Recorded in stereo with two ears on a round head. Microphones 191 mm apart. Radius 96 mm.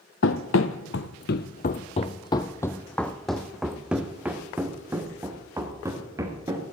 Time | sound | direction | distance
0.2 | running footsteps | 65° left (ahead or behind) | 1.1 m